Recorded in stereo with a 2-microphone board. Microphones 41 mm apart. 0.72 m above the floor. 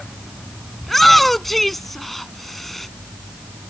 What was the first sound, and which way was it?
A shout, 5° left (ahead or behind).